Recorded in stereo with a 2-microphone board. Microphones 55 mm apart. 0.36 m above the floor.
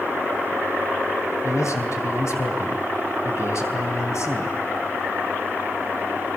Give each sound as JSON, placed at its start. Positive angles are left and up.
{"t": 1.4, "sound": "a man speaking", "side_deg": 65, "distance_m": 3.0}